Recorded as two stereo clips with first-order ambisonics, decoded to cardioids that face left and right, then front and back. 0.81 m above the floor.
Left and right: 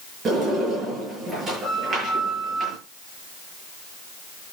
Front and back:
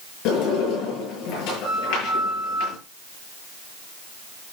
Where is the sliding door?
25° right, 8.5 m.